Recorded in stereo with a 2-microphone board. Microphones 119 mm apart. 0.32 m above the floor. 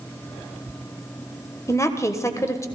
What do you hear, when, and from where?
1.7 s a woman speaking: 25° left (ahead or behind), 1.4 m